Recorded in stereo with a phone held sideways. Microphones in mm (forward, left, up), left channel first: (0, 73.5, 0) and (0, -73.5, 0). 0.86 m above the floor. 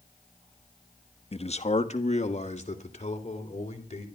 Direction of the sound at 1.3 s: 45° left (ahead or behind).